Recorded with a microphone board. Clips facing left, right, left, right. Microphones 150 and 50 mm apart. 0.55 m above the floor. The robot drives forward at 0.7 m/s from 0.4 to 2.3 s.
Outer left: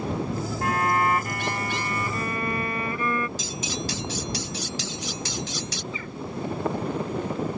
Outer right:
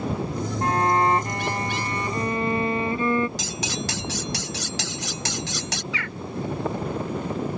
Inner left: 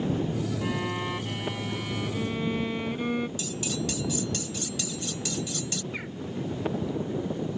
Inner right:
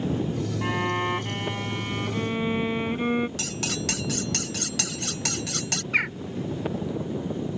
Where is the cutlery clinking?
80° right.